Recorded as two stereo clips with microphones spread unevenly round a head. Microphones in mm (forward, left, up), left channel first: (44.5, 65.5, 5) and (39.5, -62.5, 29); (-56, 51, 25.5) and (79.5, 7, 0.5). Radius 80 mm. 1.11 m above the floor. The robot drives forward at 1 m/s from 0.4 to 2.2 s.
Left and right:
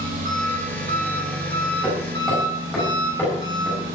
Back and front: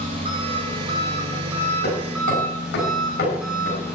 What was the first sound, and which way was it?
An engine running, 75° right.